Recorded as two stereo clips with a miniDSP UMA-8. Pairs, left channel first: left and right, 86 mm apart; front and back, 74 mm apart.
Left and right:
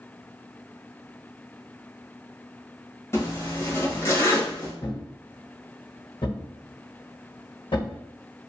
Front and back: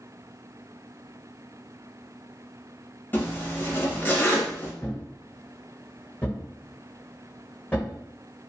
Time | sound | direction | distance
3.1 | a zipper | 50° left | 1.0 m
4.8 | a thud | 70° left | 1.6 m